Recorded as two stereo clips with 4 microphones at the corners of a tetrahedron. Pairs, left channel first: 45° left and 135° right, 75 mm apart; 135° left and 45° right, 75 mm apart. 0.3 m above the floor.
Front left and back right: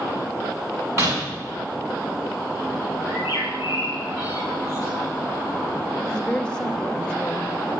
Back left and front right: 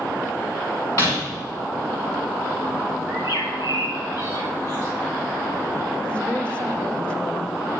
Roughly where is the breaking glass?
Behind.